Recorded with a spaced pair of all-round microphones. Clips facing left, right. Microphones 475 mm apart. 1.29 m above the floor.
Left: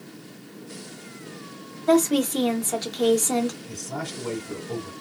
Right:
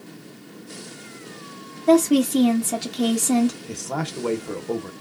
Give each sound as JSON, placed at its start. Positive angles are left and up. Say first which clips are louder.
{"t": 1.9, "sound": "a woman speaking", "louder": "right 4 dB", "side_deg": -50, "distance_m": 1.0}
{"t": 3.7, "sound": "a man speaking", "louder": "right 4 dB", "side_deg": -80, "distance_m": 0.9}